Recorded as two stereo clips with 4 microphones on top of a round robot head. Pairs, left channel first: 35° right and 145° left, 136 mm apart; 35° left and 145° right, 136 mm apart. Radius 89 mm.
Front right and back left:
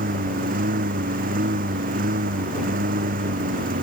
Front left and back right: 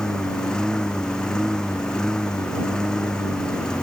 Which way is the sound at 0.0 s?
120° left.